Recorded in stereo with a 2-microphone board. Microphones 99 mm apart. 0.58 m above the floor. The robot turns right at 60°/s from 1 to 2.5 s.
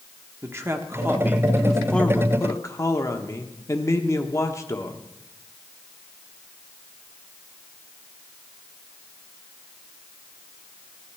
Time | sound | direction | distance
0.4 | a man speaking | 40° right | 1.2 m